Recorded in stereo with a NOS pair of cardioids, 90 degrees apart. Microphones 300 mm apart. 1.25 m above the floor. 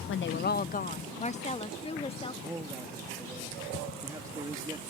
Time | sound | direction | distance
0.1 | a woman speaking | 45° left | ?
2.4 | a man speaking | 10° right | ?